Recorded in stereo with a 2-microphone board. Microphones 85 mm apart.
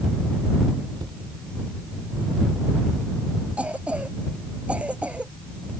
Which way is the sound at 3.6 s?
15° right (ahead or behind).